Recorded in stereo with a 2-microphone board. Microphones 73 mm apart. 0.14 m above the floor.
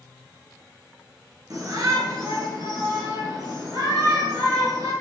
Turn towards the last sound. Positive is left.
turn(degrees=-65)  # may be behind; listen again after turning